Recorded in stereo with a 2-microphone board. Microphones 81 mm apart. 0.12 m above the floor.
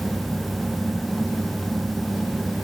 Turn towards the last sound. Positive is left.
No sound to turn to.